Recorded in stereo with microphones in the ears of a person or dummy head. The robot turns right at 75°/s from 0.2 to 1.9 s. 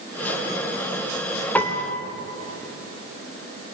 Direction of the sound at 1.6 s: 15° left (ahead or behind).